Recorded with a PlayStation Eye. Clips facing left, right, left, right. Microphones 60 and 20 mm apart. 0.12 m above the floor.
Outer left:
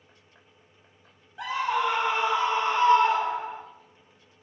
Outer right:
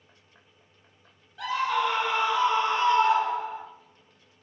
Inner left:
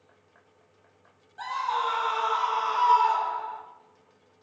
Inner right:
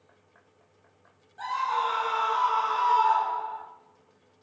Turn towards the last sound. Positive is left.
turn(degrees=35)  # may be behind; listen again after turning